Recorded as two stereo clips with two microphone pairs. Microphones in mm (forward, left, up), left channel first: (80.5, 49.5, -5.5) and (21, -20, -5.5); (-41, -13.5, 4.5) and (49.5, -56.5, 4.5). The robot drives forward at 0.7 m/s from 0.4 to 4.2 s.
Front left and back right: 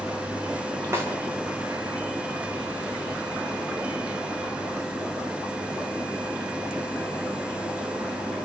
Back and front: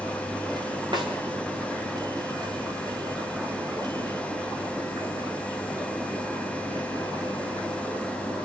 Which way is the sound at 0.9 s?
70° right.